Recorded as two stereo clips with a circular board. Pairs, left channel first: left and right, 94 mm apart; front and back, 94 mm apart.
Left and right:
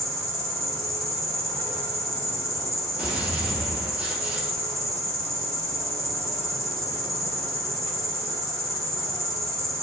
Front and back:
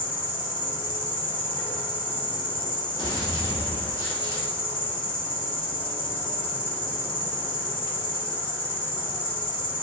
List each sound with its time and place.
0.0 s an insect: 30° left, 0.7 m
3.0 s a gunshot: 15° right, 1.2 m